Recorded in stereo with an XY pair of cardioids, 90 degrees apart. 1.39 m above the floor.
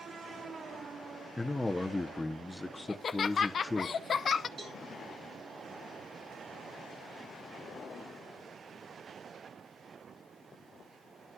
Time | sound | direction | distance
1.4 | a man speaking | 15° left | 0.7 m
2.9 | laughter | 50° left | 0.6 m
4.6 | a cowbell | 55° right | 3.5 m